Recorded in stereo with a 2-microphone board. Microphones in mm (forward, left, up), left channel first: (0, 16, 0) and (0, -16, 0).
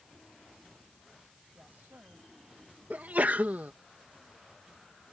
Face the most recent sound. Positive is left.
turn(degrees=-55)  # may be behind; listen again after turning